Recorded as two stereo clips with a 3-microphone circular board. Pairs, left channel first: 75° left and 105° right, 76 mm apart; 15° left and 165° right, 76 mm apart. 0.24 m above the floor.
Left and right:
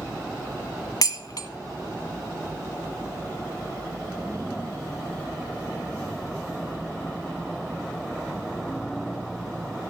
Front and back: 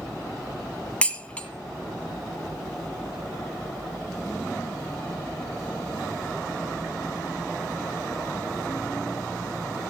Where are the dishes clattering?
85° left, 1.2 m.